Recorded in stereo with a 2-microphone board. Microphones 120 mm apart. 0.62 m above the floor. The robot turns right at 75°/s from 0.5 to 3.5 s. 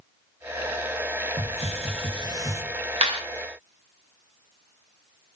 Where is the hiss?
115° right, 0.7 m; by 2.6 s 20° right, 0.7 m.